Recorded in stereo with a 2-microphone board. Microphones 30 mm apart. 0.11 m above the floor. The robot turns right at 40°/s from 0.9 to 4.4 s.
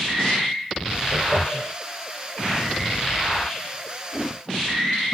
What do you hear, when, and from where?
1.1 s laughter: 15° right (ahead or behind), 2.5 m; by 1.7 s 10° left (ahead or behind), 2.5 m